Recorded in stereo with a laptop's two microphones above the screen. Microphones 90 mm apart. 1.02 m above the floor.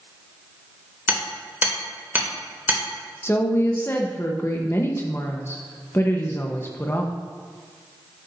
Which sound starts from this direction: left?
A woman speaking, at 3.2 s.